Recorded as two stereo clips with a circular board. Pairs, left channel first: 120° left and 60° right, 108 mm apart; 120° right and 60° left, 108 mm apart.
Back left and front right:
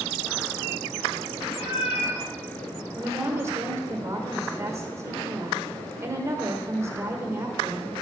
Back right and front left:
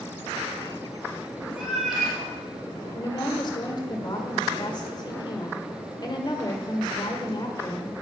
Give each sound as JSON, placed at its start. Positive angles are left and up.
{"t": 1.6, "sound": "a cat meowing", "azimuth_deg": 150, "distance_m": 1.2}
{"t": 3.0, "sound": "a woman speaking", "azimuth_deg": -110, "distance_m": 1.2}